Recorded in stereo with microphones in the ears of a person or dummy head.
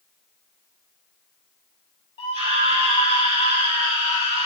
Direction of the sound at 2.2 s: 25° left (ahead or behind).